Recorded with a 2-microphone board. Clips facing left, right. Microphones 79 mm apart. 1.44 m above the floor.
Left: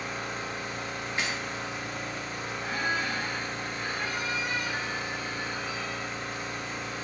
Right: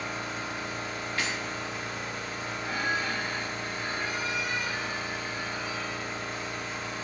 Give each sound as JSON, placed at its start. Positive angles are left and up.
{"t": 0.0, "sound": "an engine running", "side_deg": 70, "distance_m": 1.6}
{"t": 1.2, "sound": "breaking glass", "side_deg": 20, "distance_m": 0.7}
{"t": 2.6, "sound": "a squeak", "side_deg": 45, "distance_m": 1.3}